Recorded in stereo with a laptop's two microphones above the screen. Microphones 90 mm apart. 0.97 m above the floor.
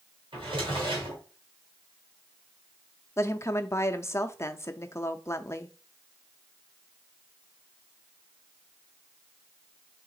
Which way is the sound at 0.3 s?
70° right (ahead or behind).